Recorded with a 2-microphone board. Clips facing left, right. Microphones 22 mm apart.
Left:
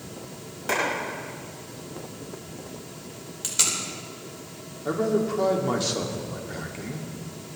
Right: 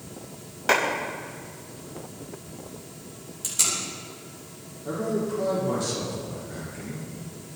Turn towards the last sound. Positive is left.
turn(degrees=35)  # may be behind; listen again after turning